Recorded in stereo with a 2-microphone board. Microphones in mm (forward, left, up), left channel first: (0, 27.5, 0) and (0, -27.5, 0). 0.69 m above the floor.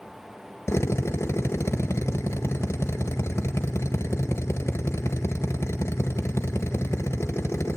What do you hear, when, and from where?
0.7 s a drill: 55° left (ahead or behind), 1.8 m